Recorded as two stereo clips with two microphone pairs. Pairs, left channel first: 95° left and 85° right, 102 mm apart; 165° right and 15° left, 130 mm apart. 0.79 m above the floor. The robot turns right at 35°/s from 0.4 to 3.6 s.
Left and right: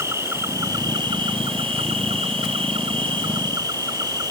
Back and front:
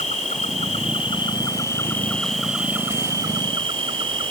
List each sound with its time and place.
0.0 s an insect: 145° right; by 4.3 s 35° right